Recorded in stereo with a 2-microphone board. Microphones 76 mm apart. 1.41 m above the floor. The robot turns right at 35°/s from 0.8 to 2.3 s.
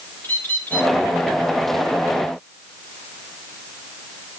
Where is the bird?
20° left (ahead or behind), 4 m.